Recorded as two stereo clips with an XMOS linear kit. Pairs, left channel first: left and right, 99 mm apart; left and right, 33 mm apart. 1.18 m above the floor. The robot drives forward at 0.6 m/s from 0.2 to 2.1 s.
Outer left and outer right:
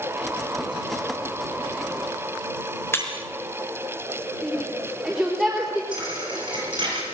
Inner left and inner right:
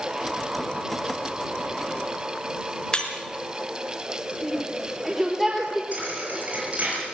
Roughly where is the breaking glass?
Left.